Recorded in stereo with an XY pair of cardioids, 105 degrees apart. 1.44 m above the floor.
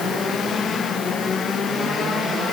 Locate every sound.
Only background noise.